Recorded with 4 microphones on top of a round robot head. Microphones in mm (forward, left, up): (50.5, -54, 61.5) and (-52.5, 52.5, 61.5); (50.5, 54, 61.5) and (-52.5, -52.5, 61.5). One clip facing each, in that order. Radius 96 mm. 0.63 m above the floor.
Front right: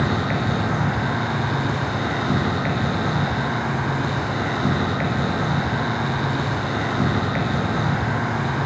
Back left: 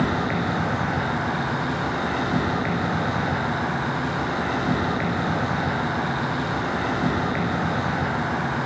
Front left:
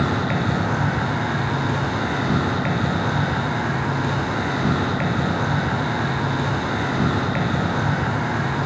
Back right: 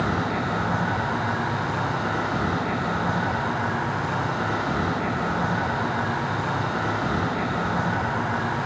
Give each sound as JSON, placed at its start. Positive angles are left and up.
{"t": 0.0, "sound": "an insect", "azimuth_deg": 20, "distance_m": 1.4}